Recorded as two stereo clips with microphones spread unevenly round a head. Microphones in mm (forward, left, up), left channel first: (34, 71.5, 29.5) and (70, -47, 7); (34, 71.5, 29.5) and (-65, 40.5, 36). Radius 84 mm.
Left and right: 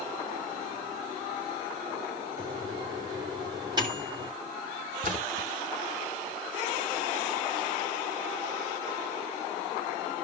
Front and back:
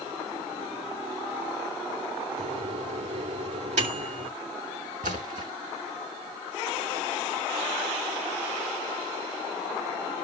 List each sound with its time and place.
2.4 s a microwave: 140° right, 2.5 m
5.0 s a splash: 125° right, 3 m